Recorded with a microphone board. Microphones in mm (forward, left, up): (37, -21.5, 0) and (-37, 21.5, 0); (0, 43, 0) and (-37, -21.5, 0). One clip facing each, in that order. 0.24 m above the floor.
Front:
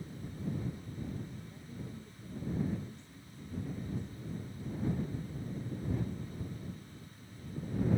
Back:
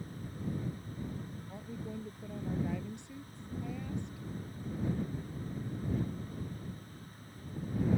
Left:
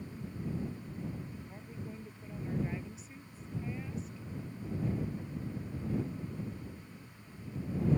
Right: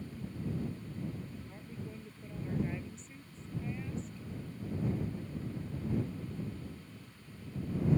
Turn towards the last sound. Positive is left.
turn(degrees=145)